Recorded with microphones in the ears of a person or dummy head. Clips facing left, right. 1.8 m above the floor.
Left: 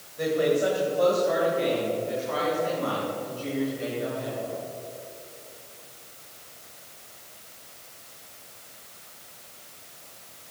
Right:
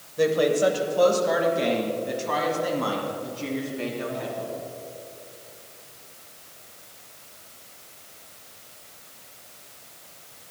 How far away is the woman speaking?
About 1.8 m.